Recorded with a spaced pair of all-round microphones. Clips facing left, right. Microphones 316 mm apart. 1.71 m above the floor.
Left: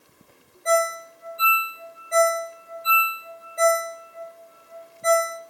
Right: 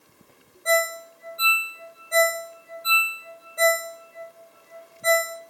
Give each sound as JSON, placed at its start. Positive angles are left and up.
{"t": 0.7, "sound": "a ringtone", "side_deg": 5, "distance_m": 2.0}